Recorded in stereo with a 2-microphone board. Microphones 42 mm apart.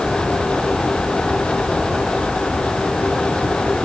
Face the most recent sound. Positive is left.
No sound to turn to.